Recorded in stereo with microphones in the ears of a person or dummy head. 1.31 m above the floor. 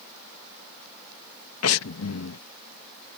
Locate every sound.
1.6 s breathing: 80° left